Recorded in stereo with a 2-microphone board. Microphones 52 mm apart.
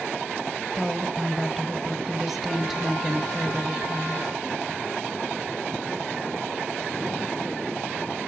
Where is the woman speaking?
5° right (ahead or behind), 1.7 m.